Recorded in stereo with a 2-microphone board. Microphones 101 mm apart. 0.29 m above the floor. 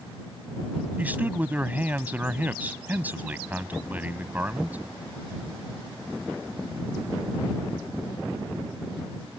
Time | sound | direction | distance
1.0 | a man speaking | 15° right (ahead or behind) | ?